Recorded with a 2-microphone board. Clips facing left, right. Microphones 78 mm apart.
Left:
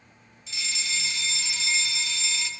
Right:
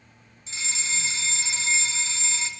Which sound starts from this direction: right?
A fire alarm, at 0.5 s.